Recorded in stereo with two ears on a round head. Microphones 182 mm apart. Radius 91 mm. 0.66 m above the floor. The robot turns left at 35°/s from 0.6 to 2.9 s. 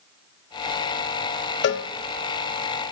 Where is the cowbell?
60° left (ahead or behind), 0.7 m; by 1.9 s 65° left (ahead or behind), 0.7 m.